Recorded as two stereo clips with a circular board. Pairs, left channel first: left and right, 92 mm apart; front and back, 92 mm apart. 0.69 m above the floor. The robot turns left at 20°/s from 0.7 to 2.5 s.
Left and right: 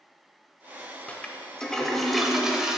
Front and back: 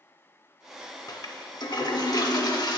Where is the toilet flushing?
20° left, 0.5 m; by 2.8 s 10° right, 0.5 m.